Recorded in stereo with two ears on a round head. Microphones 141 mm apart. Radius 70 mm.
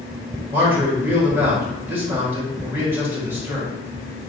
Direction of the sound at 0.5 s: 15° right (ahead or behind).